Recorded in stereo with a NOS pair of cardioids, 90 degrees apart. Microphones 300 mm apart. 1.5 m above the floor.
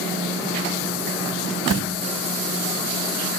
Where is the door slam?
60° right, 1.1 m.